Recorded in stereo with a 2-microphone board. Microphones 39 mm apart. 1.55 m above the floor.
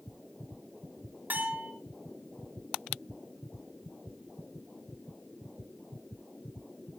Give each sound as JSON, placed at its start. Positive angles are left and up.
{"t": 1.3, "sound": "a bell", "side_deg": -55, "distance_m": 4.0}